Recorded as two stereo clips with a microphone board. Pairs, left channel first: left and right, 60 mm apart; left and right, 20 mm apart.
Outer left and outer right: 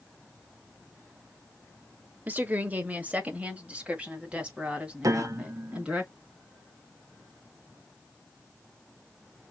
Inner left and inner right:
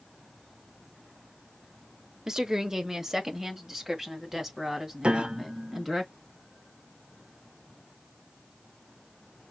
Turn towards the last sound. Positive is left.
turn(degrees=-75)  # may be behind; listen again after turning